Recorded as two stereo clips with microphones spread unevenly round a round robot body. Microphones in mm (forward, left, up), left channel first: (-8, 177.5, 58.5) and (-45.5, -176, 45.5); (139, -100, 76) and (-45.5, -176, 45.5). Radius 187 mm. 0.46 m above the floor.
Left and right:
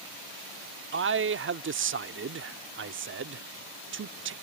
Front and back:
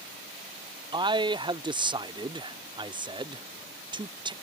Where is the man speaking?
120° right.